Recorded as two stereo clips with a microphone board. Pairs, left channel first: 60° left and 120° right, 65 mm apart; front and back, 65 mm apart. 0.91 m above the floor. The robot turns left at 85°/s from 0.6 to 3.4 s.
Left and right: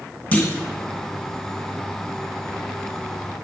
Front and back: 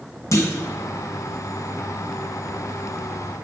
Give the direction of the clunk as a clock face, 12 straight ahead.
12 o'clock.